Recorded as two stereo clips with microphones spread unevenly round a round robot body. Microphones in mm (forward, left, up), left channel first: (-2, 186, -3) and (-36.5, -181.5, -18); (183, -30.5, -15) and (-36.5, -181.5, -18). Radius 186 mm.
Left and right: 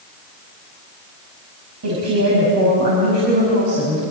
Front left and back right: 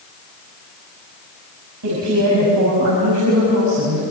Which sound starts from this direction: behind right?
A woman speaking, at 1.8 s.